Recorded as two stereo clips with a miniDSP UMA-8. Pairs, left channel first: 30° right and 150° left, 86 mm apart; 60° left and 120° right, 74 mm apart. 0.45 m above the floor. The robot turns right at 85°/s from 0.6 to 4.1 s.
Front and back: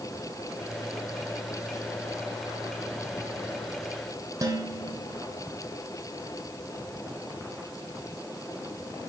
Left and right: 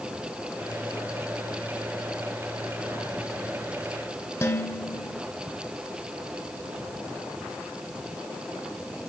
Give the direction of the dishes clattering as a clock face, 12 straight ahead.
8 o'clock.